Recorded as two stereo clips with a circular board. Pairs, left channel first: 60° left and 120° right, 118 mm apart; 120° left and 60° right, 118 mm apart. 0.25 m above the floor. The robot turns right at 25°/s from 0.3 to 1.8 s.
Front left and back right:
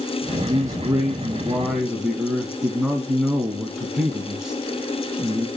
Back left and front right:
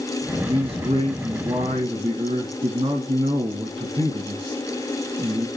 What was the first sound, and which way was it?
A man speaking, 70° right.